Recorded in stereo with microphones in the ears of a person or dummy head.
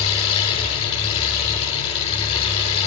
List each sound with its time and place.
0.0 s an engine running: 30° left (ahead or behind), 8.5 m